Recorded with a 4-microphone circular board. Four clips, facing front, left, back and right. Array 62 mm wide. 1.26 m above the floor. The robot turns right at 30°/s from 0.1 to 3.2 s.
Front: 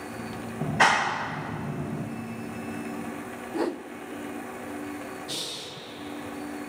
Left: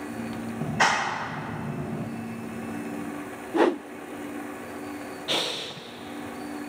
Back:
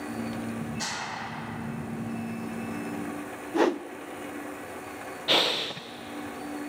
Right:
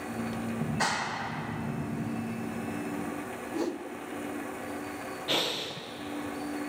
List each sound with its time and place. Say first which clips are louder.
0.6 s a clap: left 8 dB, front 12 dB; 25° left, 1.5 m; by 2.1 s 70° left, 1.5 m
3.5 s a whoosh: left 11 dB, back 5 dB; 115° left, 0.5 m
5.3 s breathing: left 1 dB, back 11 dB; 170° left, 1.0 m